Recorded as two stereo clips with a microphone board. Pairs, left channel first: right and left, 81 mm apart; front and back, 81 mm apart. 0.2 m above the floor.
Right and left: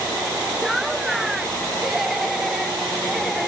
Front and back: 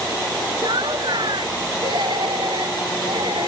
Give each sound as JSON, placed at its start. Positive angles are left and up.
{"t": 0.6, "sound": "laughter", "azimuth_deg": 175}